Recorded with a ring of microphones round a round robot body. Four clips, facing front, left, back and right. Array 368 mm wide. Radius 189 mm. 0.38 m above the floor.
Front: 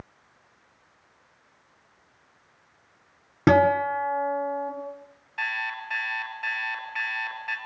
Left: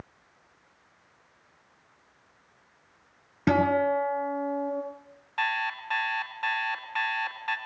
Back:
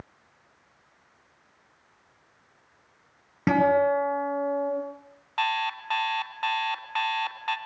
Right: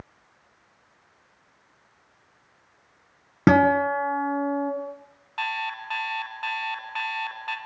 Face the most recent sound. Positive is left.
turn(degrees=180)